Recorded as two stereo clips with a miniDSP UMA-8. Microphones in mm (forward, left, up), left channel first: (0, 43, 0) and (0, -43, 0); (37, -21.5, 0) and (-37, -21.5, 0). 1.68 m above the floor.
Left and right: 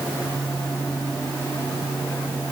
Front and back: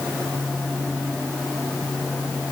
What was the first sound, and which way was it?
Only background noise.